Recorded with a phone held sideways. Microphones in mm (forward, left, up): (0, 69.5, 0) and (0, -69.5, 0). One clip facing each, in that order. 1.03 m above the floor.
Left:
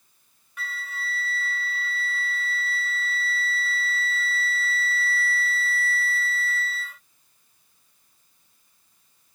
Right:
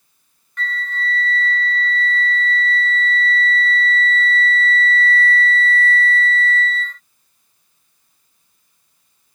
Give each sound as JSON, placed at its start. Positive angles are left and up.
{"t": 0.6, "sound": "a flute", "side_deg": 10}